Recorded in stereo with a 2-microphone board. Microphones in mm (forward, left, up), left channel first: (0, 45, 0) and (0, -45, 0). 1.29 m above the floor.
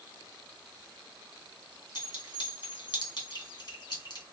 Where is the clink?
55° left (ahead or behind), 2 m.